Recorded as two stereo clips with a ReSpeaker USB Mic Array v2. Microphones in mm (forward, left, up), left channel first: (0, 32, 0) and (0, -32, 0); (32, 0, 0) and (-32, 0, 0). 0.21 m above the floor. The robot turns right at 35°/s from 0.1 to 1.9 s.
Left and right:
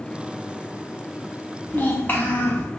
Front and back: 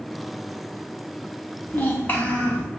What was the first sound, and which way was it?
A child speaking, 40° left.